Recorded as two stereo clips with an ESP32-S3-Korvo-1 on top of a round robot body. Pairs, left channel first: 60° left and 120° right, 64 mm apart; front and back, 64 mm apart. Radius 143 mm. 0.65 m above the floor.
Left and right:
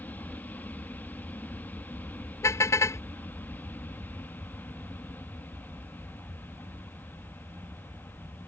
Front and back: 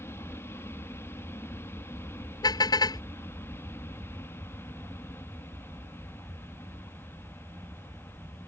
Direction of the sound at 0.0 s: 15° left.